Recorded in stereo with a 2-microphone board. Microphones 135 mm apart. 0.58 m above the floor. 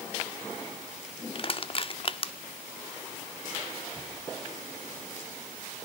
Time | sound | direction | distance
1.4 | crushing | 40° left (ahead or behind) | 0.8 m